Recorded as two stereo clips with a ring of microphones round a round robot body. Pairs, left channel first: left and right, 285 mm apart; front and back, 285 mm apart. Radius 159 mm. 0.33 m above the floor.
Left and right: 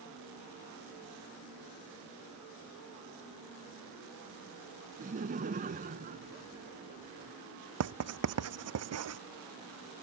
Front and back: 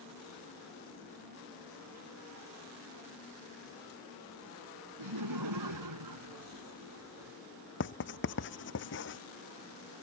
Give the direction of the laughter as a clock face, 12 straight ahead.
5 o'clock.